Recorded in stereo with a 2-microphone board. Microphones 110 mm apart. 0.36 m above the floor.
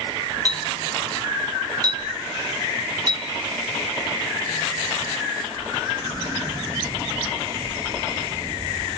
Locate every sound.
0.5 s a clink: 35° right (ahead or behind), 3.5 m